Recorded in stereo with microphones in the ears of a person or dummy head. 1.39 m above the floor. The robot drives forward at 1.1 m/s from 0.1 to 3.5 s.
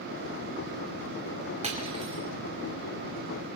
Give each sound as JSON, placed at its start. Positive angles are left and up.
{"t": 1.6, "sound": "cutlery clinking", "side_deg": -35, "distance_m": 3.0}